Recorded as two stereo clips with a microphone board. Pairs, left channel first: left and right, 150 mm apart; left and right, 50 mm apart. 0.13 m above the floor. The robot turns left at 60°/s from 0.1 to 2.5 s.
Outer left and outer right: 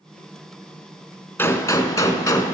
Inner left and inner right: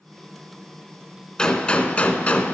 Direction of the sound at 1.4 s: 15° left (ahead or behind).